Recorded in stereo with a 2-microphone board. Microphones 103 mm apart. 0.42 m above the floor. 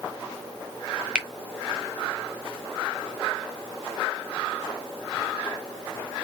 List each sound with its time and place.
1.1 s a finger snap: 10° right (ahead or behind), 0.9 m